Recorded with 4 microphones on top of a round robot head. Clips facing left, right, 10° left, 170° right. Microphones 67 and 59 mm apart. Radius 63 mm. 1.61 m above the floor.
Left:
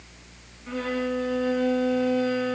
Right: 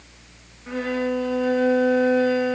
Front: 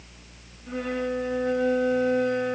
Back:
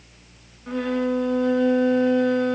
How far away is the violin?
About 2.5 m.